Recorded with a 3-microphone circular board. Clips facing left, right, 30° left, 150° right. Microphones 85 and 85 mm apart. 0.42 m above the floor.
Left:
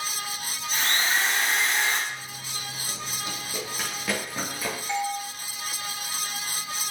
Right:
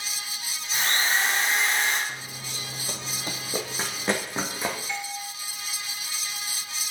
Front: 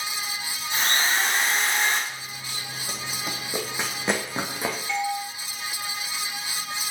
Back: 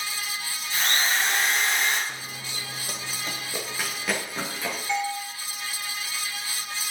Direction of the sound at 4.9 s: 135° left.